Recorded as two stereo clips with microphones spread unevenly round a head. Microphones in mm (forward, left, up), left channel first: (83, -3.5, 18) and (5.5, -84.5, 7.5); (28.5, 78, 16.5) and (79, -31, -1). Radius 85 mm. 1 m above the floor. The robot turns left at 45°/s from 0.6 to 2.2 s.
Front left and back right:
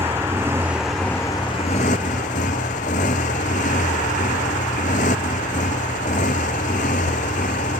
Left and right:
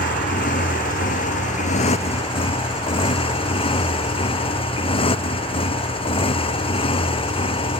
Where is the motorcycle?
150° left; by 7.8 s 75° left.